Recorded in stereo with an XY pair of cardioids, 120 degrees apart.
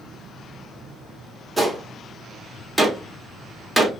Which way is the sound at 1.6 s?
5° right.